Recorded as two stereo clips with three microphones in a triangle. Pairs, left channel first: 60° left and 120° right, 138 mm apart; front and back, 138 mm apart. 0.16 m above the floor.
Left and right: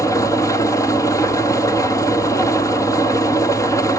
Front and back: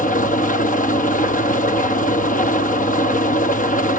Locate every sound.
0.0 s an engine running: 5° right, 1.2 m